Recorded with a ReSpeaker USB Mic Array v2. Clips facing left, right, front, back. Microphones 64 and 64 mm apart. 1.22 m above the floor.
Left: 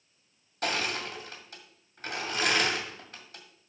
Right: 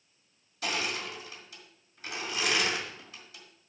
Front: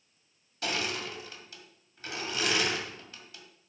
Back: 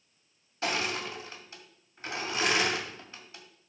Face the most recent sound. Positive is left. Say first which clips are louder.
# left 2 dB, back 2 dB
turn(degrees=120)